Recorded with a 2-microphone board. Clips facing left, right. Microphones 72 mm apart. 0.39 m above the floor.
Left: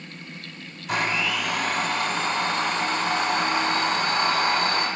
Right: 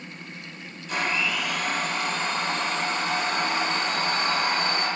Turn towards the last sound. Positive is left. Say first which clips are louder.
# left 2 dB
turn(degrees=75)  # may be behind; listen again after turning